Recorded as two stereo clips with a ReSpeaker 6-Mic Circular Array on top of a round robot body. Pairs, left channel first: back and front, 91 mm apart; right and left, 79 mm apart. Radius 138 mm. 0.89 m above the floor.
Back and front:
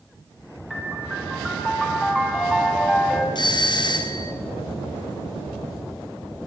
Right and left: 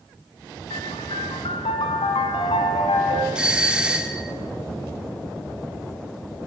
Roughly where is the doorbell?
Behind.